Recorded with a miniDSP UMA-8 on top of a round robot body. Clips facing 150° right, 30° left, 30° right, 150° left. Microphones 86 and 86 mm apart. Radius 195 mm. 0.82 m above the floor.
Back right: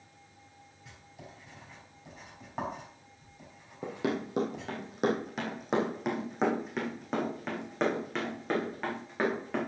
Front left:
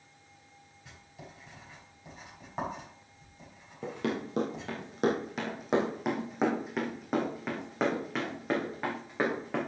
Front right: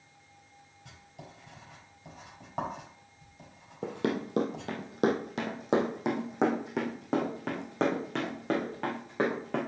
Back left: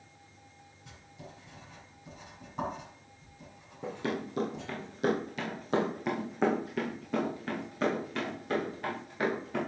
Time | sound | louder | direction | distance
0.8 | writing | even, even | 60° right | 5.5 m
3.8 | running footsteps | back right 1 dB, front right 3 dB | 65° right | 1.4 m